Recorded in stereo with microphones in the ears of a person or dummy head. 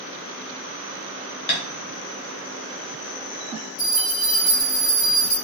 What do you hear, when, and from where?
1.5 s tapping: 25° left (ahead or behind), 0.5 m
3.8 s a bell: 50° left (ahead or behind), 1.2 m